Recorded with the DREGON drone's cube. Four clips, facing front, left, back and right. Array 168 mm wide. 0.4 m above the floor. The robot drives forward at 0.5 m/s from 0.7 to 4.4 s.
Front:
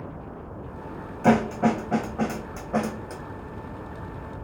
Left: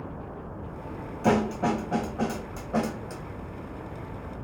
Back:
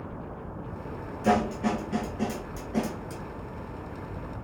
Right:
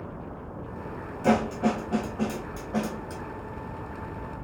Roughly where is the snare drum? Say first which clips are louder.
Even, front 4 dB; ahead.